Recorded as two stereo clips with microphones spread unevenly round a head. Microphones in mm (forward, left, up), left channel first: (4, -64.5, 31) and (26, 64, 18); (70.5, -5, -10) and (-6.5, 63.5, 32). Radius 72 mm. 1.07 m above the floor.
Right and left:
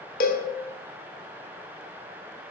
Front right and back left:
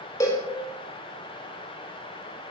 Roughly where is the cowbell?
Behind right.